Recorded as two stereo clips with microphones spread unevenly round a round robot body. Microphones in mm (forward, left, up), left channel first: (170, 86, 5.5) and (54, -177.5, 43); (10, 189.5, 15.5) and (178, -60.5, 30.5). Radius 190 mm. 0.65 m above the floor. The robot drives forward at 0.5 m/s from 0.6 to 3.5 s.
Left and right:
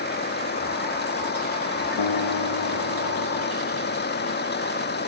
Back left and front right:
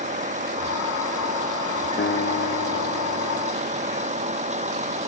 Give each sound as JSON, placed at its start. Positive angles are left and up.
{"t": 0.0, "sound": "a vehicle", "azimuth_deg": 10}
{"t": 2.0, "sound": "a guitar", "azimuth_deg": 70}